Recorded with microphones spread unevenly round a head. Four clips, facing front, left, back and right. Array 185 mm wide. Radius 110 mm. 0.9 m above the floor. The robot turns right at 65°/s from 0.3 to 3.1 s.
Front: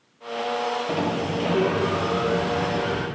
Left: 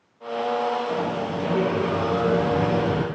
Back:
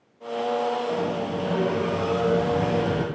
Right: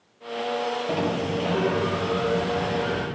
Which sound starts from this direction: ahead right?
A sliding door, at 0.9 s.